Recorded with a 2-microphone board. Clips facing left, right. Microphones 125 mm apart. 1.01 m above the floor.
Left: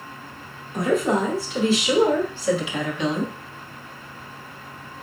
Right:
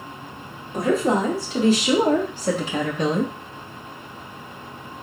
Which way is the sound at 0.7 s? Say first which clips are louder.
Right 1 dB; 35° right (ahead or behind).